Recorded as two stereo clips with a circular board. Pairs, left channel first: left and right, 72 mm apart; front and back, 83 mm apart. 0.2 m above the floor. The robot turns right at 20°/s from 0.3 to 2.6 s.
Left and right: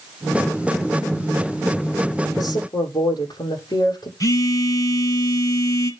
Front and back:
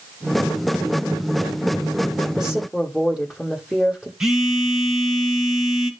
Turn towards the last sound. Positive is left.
turn(degrees=100)